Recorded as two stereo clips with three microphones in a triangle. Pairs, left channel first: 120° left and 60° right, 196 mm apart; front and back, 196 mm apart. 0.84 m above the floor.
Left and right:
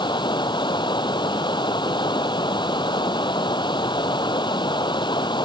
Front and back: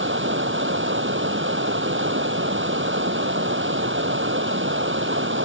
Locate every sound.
0.0 s running water: 175° right